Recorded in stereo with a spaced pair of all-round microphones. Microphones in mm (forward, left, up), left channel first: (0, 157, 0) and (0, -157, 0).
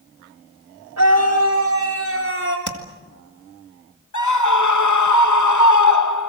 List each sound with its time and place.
1.0 s a scream: 60° right (ahead or behind), 4.5 m; by 2.6 s 35° right (ahead or behind), 4 m
2.7 s tapping: 65° right (ahead or behind), 2 m
4.1 s a scream: 65° left (ahead or behind), 1.0 m